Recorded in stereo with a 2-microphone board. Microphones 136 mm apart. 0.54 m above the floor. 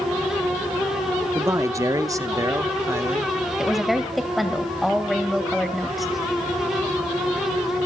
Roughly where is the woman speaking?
Centre.